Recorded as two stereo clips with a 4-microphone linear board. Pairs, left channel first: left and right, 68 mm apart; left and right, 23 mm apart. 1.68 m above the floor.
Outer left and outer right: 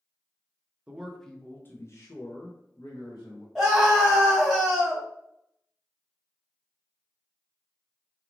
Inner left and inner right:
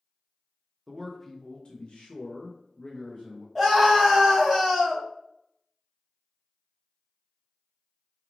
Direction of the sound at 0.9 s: 15° right (ahead or behind).